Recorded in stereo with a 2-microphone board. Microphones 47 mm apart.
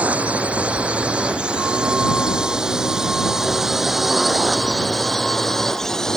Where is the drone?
30° right (ahead or behind); by 6.2 s 10° left (ahead or behind).